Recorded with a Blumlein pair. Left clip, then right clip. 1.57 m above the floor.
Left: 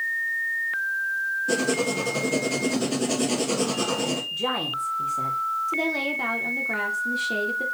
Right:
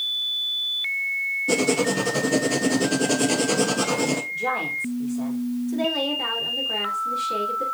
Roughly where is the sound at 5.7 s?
Ahead left.